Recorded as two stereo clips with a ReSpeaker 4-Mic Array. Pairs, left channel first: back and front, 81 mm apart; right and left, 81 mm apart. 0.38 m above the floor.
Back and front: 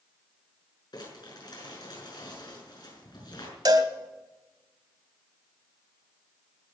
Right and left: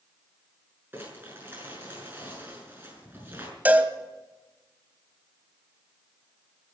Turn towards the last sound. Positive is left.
turn(degrees=25)